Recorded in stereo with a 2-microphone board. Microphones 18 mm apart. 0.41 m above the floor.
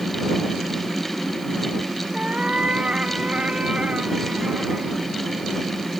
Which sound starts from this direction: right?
A cat meowing, at 2.1 s.